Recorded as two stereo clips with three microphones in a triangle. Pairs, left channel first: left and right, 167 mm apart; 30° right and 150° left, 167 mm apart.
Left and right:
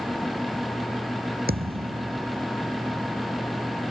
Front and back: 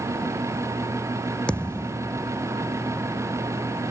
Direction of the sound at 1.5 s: 115° right.